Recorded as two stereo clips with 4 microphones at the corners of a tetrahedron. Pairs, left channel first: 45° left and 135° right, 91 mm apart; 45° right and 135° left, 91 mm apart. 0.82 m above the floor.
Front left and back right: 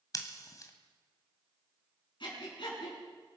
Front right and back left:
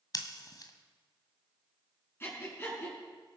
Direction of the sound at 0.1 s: Straight ahead.